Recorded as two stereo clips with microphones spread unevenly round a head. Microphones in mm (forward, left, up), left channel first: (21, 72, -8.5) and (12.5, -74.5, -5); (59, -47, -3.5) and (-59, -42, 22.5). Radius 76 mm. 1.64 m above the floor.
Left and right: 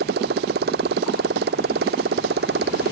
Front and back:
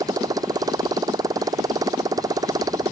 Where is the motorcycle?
125° right.